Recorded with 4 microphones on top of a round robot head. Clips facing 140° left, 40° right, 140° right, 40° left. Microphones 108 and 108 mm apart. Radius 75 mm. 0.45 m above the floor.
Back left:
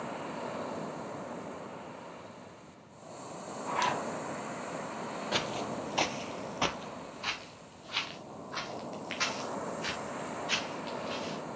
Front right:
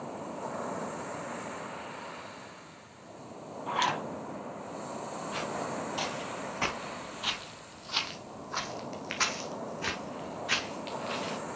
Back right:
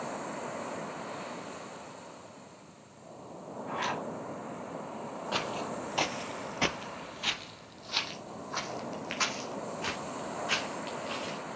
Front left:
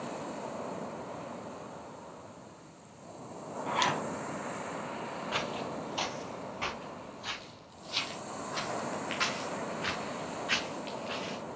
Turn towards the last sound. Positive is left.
turn(degrees=-80)